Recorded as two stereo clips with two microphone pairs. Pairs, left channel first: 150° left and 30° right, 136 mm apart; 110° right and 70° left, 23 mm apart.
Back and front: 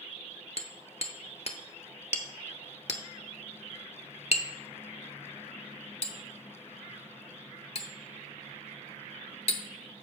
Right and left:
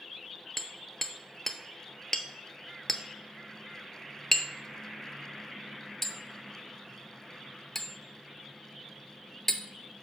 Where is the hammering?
175° left, 0.7 m.